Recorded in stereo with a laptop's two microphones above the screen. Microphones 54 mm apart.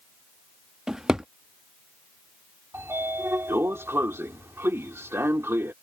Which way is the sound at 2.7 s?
50° right (ahead or behind).